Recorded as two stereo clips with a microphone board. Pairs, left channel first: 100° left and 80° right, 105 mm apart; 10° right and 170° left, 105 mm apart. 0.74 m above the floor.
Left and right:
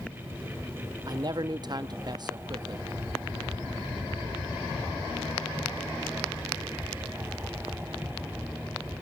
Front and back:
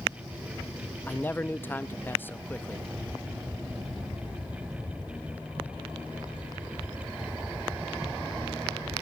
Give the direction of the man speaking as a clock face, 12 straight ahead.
3 o'clock.